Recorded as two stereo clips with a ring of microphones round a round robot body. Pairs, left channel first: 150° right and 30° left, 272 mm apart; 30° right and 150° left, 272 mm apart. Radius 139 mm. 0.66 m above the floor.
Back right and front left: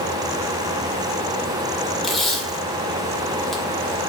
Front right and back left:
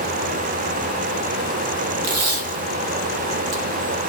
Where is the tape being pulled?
120° left, 1.5 m.